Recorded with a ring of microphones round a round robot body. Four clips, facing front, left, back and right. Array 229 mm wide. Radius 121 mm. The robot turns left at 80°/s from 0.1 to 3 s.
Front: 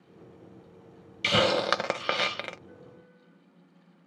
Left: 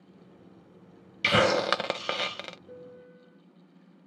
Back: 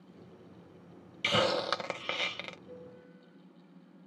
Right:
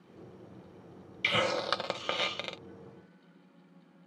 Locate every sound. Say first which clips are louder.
1.2 s a hiss: left 7 dB, front 5 dB; 80° left; by 2.6 s 25° right
2.7 s a piano: left 5 dB, back 2 dB; 125° left; by 3.4 s 100° left